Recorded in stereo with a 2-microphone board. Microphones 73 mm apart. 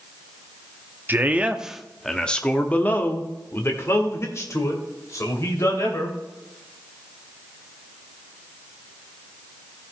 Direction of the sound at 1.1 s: 30° right (ahead or behind).